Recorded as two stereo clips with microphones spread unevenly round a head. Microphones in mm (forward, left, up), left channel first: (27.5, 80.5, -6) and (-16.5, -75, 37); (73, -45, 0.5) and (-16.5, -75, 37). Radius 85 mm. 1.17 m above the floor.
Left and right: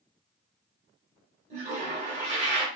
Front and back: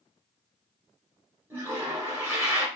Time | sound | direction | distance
1.5 | a toilet flushing | 120° right | 1.3 m